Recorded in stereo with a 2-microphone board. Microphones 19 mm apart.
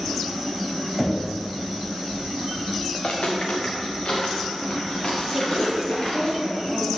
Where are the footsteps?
55° left (ahead or behind), 2 m; by 6.3 s 35° left (ahead or behind), 5 m.